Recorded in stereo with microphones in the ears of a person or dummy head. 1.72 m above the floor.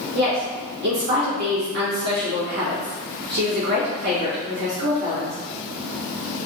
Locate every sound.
0.1 s a woman speaking: 60° right (ahead or behind), 1.9 m